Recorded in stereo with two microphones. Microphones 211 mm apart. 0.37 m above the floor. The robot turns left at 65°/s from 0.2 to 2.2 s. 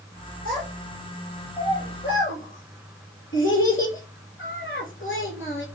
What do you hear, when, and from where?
0.5 s a child speaking: 40° right (ahead or behind), 5 m; by 5.7 s 70° left (ahead or behind), 5 m